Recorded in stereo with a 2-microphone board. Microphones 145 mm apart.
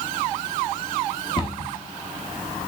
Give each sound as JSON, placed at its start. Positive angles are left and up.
{"t": 1.4, "sound": "a cupboard door", "side_deg": 30, "distance_m": 1.0}